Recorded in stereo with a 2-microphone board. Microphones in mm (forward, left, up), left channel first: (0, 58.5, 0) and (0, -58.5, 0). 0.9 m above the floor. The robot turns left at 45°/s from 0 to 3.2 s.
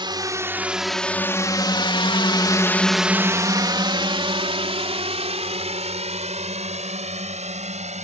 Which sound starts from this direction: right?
A drone, at 0.0 s.